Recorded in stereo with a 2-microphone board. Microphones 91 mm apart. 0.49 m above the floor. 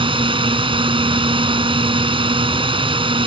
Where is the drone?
70° right (ahead or behind).